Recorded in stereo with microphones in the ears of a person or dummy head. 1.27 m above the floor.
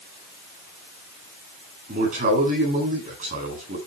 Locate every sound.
1.9 s a man speaking: 50° right (ahead or behind), 10 m